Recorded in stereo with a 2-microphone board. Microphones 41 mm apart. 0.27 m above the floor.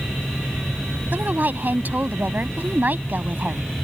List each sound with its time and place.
1.1 s a woman speaking: 50° right (ahead or behind)